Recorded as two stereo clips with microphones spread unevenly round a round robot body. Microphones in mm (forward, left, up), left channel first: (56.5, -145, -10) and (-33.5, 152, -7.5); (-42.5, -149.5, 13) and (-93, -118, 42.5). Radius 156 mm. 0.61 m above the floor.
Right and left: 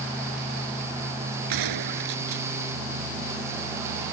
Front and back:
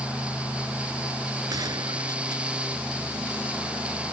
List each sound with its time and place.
1.5 s a gunshot: 135° left